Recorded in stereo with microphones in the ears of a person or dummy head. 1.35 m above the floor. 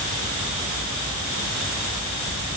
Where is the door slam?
No door slam in this recording.